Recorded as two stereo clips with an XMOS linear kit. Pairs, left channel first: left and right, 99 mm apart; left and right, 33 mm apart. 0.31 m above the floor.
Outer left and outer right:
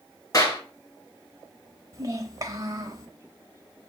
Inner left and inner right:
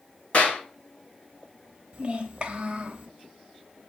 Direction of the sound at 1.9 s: 35° right (ahead or behind).